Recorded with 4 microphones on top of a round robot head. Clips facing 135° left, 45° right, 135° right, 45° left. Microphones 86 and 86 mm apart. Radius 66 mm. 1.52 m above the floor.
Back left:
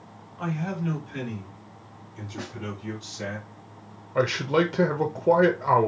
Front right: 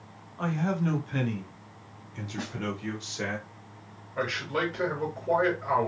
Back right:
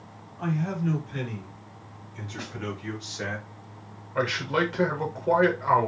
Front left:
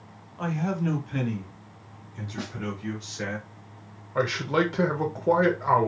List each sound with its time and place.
0.4 s a man speaking: 30° left, 1.2 m; by 3.4 s 55° right, 1.6 m
2.4 s a snare drum: 45° left, 1.5 m
4.2 s a man speaking: 115° left, 0.5 m